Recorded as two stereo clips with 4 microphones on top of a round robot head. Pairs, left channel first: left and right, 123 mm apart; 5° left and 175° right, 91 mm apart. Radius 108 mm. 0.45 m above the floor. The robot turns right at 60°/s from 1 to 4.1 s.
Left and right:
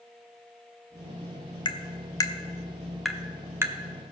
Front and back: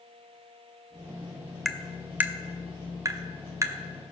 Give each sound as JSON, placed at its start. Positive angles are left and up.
{"t": 1.6, "sound": "tapping", "azimuth_deg": 95, "distance_m": 0.9}